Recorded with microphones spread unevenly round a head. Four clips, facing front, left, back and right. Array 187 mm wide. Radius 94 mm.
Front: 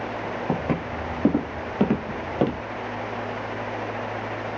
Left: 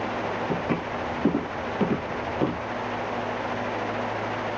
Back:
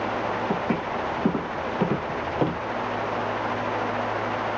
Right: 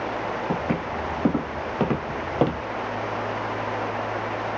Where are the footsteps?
5° right, 1.4 m; by 2.6 s 90° right, 1.1 m.